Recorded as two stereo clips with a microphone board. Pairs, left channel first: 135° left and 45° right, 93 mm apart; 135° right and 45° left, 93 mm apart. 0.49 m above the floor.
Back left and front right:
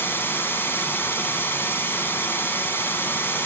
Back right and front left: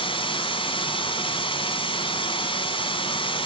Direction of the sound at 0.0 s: 155° right.